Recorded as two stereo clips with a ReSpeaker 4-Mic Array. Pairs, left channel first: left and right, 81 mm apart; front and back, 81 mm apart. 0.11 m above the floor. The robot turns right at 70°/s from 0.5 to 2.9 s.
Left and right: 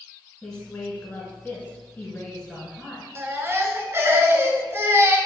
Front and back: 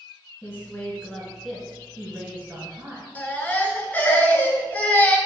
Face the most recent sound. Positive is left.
turn(degrees=-55)